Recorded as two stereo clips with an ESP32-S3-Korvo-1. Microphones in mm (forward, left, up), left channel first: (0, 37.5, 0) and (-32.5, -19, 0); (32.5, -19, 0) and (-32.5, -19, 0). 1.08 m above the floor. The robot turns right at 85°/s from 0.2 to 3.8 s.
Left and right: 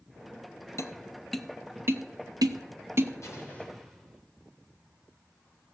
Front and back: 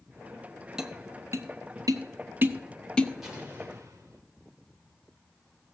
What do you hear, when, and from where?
0.8 s tapping: 100° left, 0.7 m; by 3.1 s 60° right, 0.7 m
3.2 s an explosion: 95° left, 3 m; by 4.2 s 145° left, 3 m